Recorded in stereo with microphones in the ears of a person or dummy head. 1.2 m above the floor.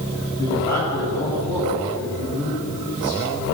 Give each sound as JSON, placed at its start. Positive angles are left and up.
{"t": 0.4, "sound": "a man speaking", "side_deg": 20, "distance_m": 9.5}